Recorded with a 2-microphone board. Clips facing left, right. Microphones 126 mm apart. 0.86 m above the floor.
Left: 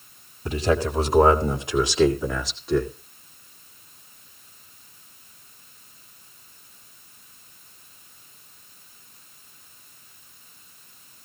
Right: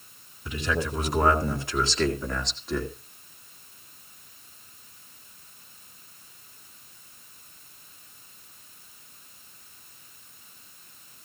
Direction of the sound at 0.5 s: 40° left (ahead or behind).